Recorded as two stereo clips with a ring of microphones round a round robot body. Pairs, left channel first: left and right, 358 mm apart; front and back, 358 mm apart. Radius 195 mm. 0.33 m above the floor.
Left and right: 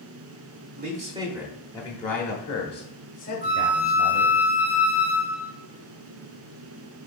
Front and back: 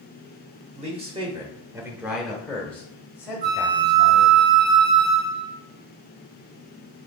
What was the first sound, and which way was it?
A man speaking, 125° right.